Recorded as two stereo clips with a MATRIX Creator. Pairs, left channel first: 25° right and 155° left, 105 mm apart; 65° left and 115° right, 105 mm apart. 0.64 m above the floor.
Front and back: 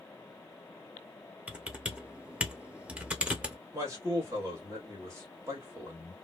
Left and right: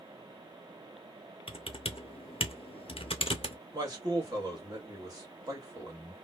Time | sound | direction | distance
1.5 | typing on a keyboard | 80° left | 0.5 m
3.7 | a man speaking | 150° right | 1.3 m